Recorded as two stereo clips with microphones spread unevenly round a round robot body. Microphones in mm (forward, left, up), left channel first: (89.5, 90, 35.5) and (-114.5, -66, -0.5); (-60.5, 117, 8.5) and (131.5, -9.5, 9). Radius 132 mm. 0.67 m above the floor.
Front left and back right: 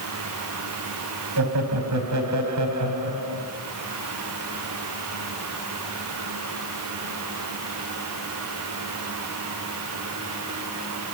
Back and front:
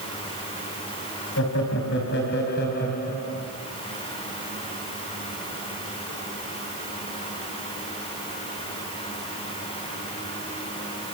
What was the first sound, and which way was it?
Laughter, 170° right.